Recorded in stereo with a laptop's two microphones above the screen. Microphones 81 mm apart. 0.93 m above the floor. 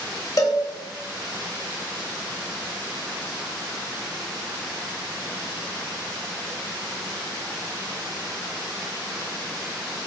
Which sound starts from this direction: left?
A cowbell, at 0.4 s.